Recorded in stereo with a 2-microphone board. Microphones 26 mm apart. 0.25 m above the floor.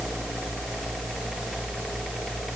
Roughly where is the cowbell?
No cowbell in this recording.